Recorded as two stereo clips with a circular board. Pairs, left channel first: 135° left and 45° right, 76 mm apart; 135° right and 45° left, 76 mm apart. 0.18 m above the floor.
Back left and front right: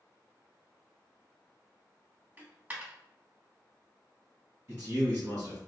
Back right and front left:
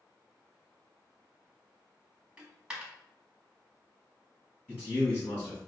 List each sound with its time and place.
2.4 s a dropped coin: 15° right, 0.6 m
4.7 s a man speaking: 80° right, 1.4 m